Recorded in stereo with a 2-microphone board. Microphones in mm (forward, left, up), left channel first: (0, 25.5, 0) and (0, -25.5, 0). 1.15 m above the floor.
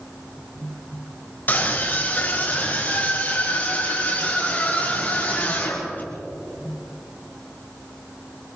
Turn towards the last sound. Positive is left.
turn(degrees=35)  # may be behind; listen again after turning